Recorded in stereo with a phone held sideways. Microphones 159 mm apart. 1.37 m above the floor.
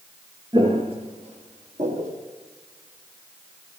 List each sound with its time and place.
0.5 s footsteps: 30° right (ahead or behind), 1.7 m; by 2.2 s 55° right (ahead or behind), 2.5 m